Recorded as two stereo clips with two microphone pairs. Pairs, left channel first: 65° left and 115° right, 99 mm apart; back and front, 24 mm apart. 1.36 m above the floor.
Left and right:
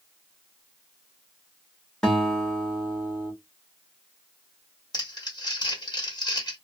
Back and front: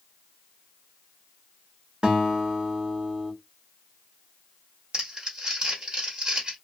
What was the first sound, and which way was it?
A guitar, 15° right.